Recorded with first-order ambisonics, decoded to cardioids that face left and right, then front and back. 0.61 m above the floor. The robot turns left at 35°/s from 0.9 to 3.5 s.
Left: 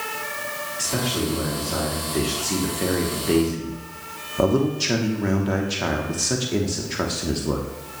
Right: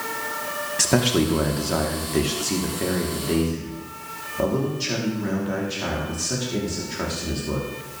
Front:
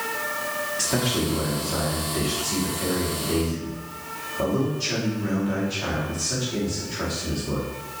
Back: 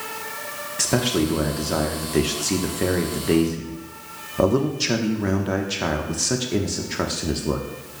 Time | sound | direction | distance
0.8 | a man speaking | 120° right | 0.9 m